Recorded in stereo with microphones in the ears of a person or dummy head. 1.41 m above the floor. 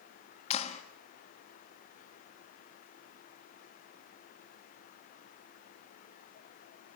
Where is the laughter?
No laughter in this recording.